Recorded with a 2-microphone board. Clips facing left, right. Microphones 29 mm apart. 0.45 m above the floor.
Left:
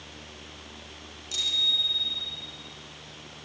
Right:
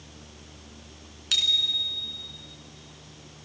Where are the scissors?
I don't hear scissors.